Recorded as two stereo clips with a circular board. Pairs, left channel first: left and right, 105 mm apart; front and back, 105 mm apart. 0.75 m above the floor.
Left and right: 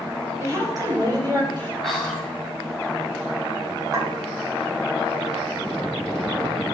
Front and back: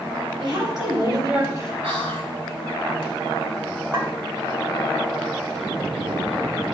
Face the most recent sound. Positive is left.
turn(degrees=-140)